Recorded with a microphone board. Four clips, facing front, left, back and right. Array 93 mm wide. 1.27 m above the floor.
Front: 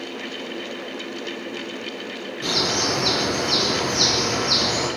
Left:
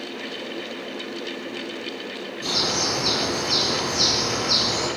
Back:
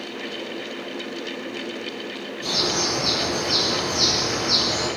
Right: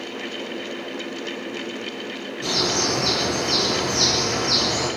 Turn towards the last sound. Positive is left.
turn(degrees=-20)